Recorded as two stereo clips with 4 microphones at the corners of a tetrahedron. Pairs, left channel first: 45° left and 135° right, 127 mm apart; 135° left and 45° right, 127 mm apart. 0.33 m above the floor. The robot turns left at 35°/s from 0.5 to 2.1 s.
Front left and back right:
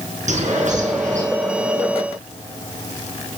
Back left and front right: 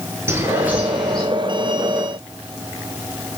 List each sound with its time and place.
0.3 s a bird: 115° right, 5.5 m; by 1.2 s 140° right, 5.5 m